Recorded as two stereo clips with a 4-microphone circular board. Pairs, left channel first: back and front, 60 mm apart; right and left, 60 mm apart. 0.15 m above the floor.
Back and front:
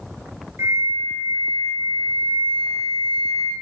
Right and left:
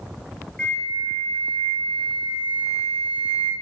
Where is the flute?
20° right, 0.6 m.